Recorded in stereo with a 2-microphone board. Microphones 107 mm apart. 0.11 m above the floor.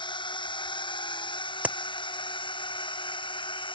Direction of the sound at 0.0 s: 50° left (ahead or behind).